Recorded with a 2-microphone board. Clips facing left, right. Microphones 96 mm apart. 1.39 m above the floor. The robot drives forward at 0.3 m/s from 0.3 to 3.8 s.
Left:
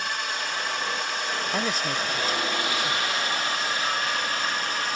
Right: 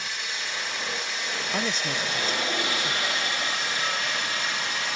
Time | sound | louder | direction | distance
0.0 | a drone | left 5 dB | 60° left (ahead or behind) | ?
1.5 | a man speaking | even | 5° left (ahead or behind) | ?